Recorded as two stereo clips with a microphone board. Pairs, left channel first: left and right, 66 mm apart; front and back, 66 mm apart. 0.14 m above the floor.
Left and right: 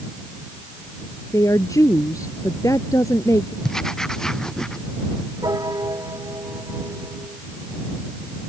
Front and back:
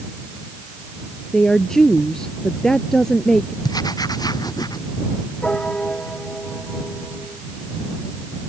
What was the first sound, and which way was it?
A woman speaking, 80° left.